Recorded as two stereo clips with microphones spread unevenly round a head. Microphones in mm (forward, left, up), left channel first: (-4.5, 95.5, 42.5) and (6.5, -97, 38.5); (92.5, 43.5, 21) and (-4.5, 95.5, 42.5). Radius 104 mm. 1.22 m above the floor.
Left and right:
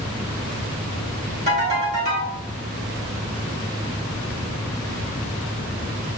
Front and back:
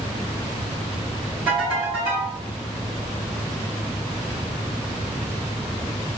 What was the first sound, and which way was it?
A ringtone, 135° right.